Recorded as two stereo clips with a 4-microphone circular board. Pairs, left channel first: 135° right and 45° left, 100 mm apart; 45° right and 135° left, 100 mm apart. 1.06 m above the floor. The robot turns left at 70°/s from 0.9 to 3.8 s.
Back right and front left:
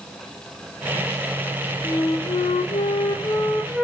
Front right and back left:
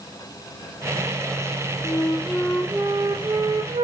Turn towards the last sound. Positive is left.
turn(degrees=130)